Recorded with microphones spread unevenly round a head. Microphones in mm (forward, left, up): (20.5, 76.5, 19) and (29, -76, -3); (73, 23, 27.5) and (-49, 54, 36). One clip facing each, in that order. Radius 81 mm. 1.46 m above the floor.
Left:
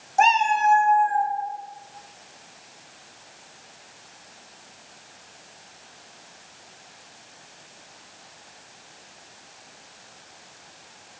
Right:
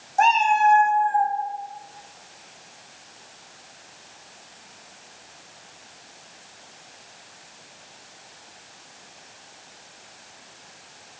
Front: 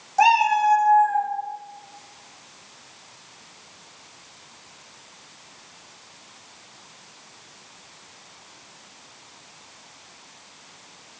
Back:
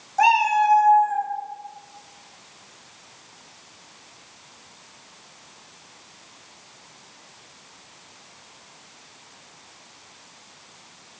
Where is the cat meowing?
65° left, 1.0 m; by 1.3 s 105° left, 1.2 m.